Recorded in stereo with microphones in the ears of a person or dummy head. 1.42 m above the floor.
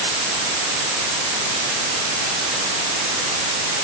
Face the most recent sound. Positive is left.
No sound to turn to.